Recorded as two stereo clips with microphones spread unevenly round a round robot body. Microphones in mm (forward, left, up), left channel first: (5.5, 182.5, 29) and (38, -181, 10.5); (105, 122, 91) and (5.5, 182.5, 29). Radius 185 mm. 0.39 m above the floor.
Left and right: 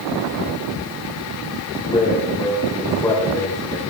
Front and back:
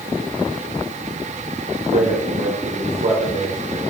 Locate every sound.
1.9 s a man speaking: 175° left, 9 m; by 3.8 s 175° right, 10 m